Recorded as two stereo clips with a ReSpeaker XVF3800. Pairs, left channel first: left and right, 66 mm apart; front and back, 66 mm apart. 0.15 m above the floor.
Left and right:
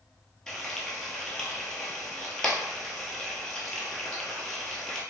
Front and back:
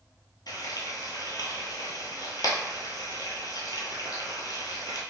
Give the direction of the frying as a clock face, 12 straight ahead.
12 o'clock.